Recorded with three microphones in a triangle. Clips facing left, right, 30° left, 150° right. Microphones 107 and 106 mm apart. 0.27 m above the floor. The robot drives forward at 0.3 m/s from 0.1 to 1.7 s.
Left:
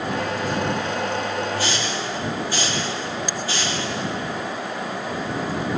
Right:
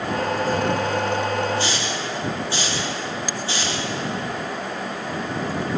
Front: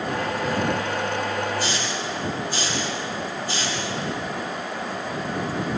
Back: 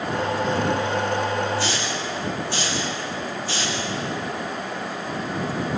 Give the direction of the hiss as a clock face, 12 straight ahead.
5 o'clock.